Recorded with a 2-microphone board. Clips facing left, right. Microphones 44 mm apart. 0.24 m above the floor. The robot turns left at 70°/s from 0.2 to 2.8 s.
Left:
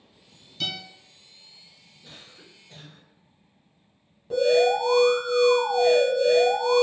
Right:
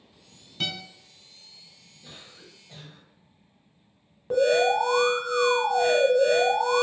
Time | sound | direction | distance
0.6 | a guitar | 35° right (ahead or behind) | 1.1 m
2.0 | a cough | 15° right (ahead or behind) | 1.5 m
4.3 | an alarm | 45° right (ahead or behind) | 0.9 m